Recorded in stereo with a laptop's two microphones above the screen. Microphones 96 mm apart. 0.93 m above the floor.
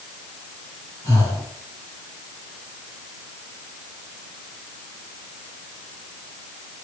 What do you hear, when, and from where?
1.0 s breathing: 30° left (ahead or behind), 8.5 m